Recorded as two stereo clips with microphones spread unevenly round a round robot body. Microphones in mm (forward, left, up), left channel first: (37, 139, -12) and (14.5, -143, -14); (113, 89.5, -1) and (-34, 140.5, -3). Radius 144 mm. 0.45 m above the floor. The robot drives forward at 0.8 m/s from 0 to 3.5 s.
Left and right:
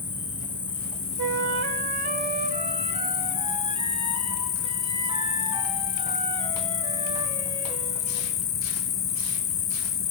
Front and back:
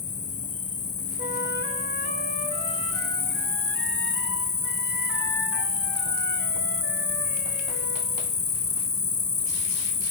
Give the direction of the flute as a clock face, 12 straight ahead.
4 o'clock.